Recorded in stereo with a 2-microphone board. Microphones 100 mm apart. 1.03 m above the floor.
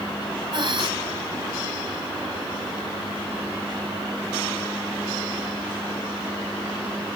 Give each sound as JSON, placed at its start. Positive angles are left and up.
{"t": 0.5, "sound": "breathing", "side_deg": -55, "distance_m": 3.0}